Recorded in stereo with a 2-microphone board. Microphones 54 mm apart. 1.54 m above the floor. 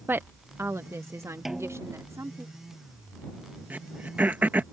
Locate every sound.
0.1 s a woman speaking: 40° right (ahead or behind); by 2.5 s 70° right (ahead or behind)
1.4 s a snare drum: 5° right (ahead or behind)
3.7 s throat clearing: 35° right (ahead or behind)